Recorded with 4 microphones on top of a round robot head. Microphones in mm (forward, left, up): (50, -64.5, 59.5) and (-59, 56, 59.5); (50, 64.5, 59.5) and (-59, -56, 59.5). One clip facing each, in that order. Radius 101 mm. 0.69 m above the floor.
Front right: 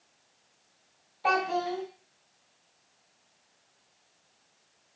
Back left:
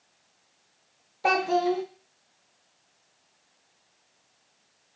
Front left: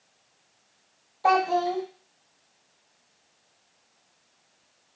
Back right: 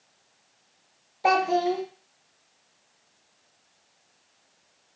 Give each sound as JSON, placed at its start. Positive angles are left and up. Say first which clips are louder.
{"t": 1.2, "sound": "a child speaking", "louder": "back left 5 dB, even", "azimuth_deg": 160, "distance_m": 0.6}